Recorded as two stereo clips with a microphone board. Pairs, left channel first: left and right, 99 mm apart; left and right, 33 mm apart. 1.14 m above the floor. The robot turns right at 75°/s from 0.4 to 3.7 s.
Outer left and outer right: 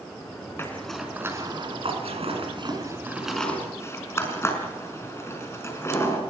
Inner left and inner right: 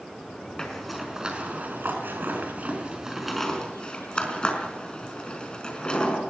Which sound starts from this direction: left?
A zipper, at 0.6 s.